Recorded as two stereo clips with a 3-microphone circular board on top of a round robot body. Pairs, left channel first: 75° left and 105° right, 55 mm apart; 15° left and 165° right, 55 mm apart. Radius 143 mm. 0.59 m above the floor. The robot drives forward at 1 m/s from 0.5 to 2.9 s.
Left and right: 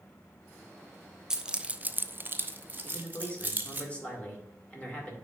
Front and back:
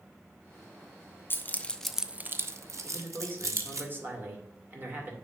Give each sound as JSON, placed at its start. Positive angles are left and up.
{"t": 1.3, "sound": "keys jangling", "azimuth_deg": -25, "distance_m": 1.0}
{"t": 2.8, "sound": "a man speaking", "azimuth_deg": 140, "distance_m": 2.5}